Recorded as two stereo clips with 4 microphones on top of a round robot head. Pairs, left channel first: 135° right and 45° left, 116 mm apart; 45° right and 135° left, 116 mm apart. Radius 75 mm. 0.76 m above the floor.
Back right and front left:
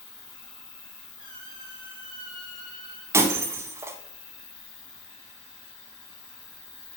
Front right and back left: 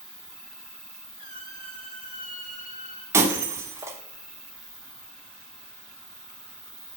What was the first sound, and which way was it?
An insect, 130° right.